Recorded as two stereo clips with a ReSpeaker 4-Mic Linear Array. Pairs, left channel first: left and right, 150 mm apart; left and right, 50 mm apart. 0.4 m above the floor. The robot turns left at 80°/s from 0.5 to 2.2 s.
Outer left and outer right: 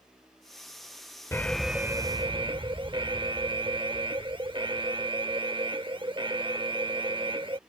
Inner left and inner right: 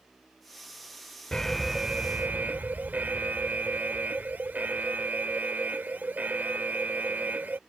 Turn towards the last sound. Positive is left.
turn(degrees=-50)